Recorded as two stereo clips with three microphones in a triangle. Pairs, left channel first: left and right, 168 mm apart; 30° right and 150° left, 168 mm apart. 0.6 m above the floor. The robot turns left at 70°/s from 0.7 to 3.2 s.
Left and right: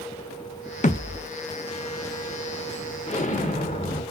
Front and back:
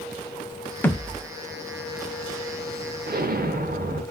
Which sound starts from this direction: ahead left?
A thud, at 0.8 s.